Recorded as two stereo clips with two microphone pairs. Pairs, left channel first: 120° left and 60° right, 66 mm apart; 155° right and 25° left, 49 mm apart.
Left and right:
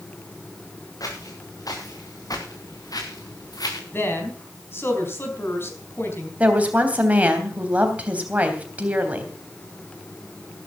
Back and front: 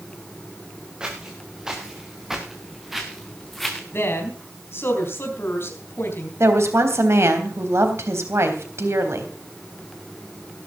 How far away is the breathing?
No breathing in this recording.